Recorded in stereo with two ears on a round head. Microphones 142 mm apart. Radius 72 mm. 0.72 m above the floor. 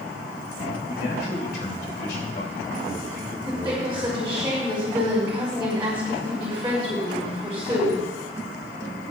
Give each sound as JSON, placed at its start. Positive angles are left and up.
{"t": 0.9, "sound": "a man speaking", "side_deg": 70, "distance_m": 3.5}
{"t": 3.5, "sound": "a woman speaking", "side_deg": -15, "distance_m": 4.5}